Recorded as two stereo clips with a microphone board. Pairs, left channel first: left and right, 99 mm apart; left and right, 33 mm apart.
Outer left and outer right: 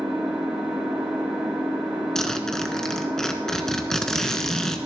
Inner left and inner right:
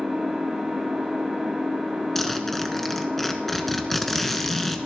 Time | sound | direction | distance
0.0 | an engine running | 15° right (ahead or behind) | 8 m
2.1 | a zipper | 5° left (ahead or behind) | 1.4 m